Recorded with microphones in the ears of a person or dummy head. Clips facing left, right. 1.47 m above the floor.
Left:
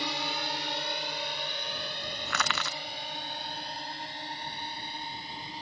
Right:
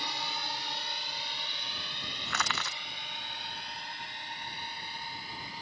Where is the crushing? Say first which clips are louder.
Left 2 dB; 60° left (ahead or behind).